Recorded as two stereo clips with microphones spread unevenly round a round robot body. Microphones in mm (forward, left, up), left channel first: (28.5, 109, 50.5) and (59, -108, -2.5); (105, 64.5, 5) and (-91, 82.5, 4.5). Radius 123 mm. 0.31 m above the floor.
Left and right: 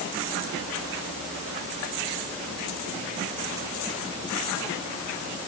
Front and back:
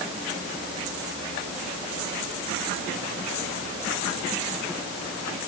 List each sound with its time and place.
Only background noise.